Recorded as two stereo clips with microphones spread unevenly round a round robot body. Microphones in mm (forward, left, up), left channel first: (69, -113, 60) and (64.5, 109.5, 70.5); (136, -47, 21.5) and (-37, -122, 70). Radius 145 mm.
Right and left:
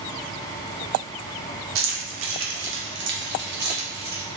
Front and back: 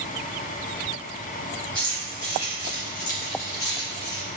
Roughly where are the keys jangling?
Left.